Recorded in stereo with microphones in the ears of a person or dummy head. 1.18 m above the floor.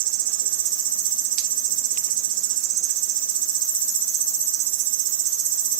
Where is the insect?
65° right (ahead or behind), 2.5 m.